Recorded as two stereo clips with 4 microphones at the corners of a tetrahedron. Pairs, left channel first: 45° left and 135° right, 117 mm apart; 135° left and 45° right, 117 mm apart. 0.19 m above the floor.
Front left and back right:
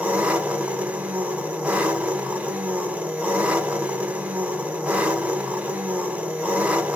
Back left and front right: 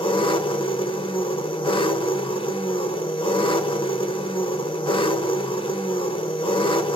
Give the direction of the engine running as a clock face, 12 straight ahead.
7 o'clock.